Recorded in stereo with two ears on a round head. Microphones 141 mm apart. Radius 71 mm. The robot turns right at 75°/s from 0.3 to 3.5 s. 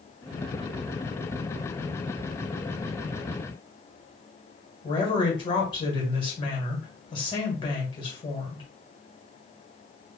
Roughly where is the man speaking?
Left.